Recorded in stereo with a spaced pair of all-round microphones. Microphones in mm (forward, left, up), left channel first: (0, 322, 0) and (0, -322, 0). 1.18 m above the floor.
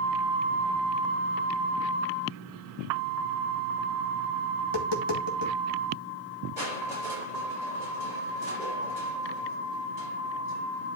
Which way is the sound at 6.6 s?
80° right.